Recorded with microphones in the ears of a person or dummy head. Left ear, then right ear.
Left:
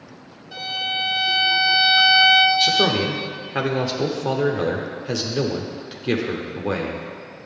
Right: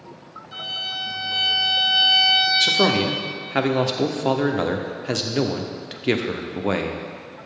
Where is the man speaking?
20° right (ahead or behind), 0.6 m.